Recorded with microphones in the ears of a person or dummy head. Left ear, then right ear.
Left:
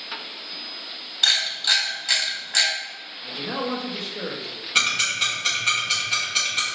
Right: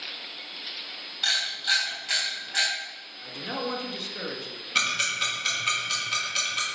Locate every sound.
1.2 s a camera shutter: 20° left (ahead or behind), 1.6 m
3.2 s a man speaking: 30° right (ahead or behind), 0.9 m
4.8 s ticking: 5° left (ahead or behind), 1.1 m